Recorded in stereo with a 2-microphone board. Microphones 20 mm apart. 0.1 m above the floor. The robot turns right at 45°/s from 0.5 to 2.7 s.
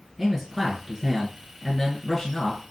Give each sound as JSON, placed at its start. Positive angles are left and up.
{"t": 0.2, "sound": "a man speaking", "side_deg": -20, "distance_m": 1.2}